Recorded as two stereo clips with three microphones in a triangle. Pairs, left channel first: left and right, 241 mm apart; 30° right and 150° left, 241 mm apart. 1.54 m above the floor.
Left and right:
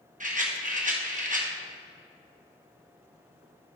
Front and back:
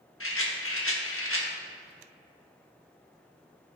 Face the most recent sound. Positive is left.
turn(degrees=-35)